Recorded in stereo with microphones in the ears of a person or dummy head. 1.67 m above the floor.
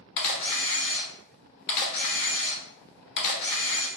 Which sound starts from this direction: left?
A camera shutter, at 0.2 s.